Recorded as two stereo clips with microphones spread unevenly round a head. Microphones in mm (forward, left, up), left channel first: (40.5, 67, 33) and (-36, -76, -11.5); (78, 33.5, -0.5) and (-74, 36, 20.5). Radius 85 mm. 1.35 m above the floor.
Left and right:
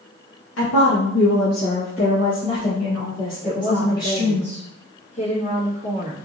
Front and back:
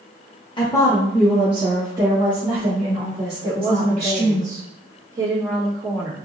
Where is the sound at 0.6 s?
60° left, 0.9 m; by 4.4 s 140° left, 2.5 m.